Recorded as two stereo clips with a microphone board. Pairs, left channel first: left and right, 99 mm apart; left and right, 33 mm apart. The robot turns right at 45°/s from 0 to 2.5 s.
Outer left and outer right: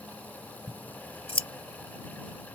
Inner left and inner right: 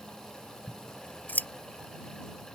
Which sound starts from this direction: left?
Scissors, at 0.7 s.